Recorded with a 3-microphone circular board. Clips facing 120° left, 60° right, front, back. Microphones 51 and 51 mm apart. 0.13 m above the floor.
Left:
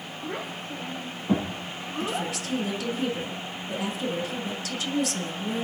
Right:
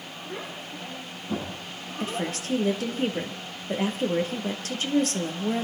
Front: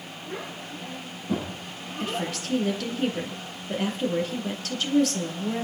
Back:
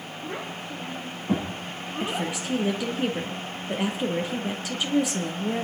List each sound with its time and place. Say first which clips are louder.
0.2 s a child speaking: left 3 dB, back 2 dB; 140° left, 5 m; by 2.3 s 135° left, 6.5 m
2.0 s a woman speaking: even, back 1 dB; 105° right, 2.5 m